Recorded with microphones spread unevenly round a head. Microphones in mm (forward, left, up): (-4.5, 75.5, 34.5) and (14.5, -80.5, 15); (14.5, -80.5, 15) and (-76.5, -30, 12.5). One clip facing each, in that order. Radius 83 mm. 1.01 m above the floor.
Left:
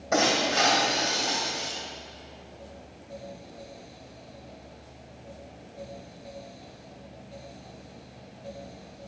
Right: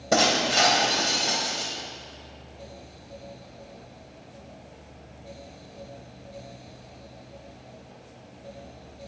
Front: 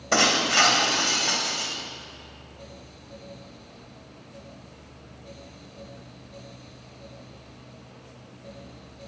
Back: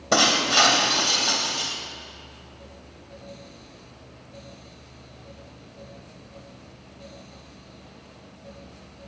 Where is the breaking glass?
140° right, 2.5 m.